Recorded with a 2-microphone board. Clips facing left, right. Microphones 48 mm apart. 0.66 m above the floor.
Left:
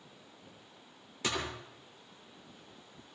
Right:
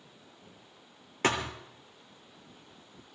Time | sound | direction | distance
1.2 | a thud | 50° right (ahead or behind) | 3 m